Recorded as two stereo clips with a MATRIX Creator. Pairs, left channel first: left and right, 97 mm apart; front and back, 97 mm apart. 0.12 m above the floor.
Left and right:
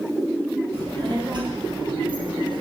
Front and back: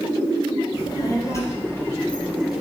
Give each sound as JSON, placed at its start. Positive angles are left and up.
{"t": 0.7, "sound": "a child speaking", "azimuth_deg": -50, "distance_m": 2.5}